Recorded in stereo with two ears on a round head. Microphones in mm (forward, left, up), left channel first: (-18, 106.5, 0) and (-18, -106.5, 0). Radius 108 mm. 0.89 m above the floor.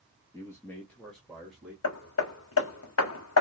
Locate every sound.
0.3 s a man speaking: 15° left (ahead or behind), 1.2 m; by 1.7 s centre (ahead or behind), 1.7 m
1.8 s hammering: 60° left (ahead or behind), 1.0 m